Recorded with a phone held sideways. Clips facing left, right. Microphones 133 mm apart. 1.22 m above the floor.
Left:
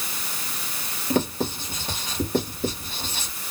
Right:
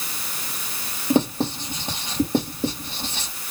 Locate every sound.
1.1 s writing: 25° right (ahead or behind), 3 m